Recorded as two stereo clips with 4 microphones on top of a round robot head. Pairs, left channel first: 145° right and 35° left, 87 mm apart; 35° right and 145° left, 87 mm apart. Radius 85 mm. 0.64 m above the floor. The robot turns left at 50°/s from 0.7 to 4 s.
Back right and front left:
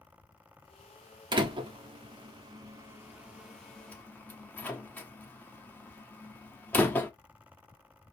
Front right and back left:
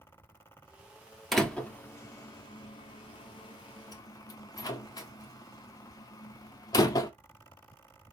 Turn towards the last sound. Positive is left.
turn(degrees=-80)